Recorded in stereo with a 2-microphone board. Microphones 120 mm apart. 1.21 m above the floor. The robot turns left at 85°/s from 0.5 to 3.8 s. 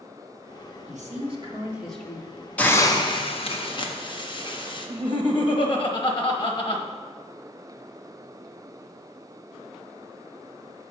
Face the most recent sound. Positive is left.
turn(degrees=45)  # may be behind; listen again after turning